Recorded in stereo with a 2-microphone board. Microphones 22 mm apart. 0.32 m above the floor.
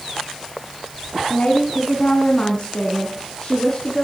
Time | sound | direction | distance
1.3 | a woman speaking | 65° left (ahead or behind) | 2.5 m